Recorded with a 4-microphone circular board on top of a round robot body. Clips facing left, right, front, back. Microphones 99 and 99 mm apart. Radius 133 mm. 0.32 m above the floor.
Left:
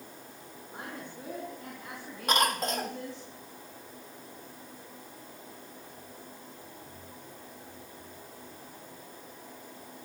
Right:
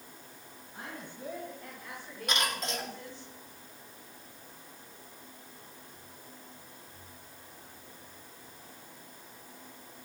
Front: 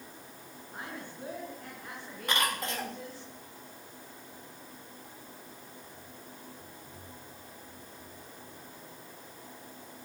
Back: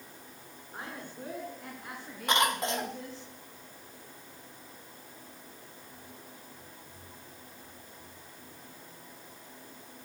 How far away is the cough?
About 1.9 m.